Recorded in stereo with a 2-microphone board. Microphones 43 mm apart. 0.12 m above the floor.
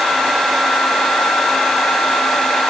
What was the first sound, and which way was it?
Only background noise.